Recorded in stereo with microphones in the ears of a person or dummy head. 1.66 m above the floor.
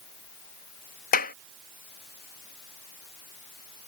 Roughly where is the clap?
Left.